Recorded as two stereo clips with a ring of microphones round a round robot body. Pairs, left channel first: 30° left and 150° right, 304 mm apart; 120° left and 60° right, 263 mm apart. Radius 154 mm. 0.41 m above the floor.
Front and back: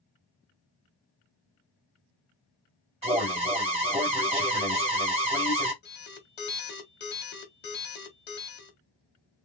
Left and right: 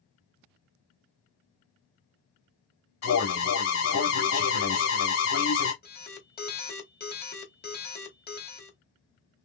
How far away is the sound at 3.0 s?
About 2.5 m.